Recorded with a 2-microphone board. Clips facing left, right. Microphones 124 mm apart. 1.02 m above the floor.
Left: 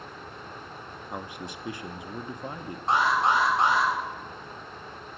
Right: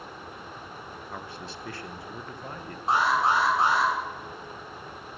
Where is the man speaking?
15° left (ahead or behind), 0.7 m.